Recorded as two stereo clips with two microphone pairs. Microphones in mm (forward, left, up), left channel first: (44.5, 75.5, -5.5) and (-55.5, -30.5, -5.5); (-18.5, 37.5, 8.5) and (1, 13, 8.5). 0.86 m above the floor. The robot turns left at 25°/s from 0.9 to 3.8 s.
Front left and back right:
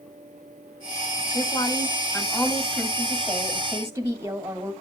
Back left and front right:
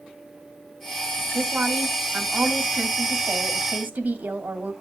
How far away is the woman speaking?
About 2.5 m.